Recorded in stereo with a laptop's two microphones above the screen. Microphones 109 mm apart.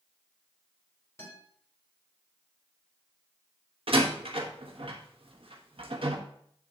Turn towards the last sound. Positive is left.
turn(degrees=-60)  # may be behind; listen again after turning